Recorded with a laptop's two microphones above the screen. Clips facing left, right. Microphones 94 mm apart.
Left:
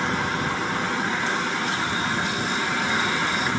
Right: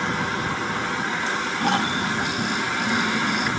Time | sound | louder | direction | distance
1.6 | snoring | right 3 dB | 65° right (ahead or behind) | ?